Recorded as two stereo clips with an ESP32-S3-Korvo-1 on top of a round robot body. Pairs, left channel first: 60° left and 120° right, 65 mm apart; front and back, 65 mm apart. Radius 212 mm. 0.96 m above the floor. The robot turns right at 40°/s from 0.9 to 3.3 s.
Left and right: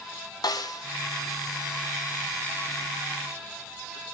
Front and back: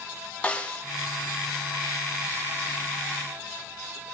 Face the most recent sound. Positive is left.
turn(degrees=170)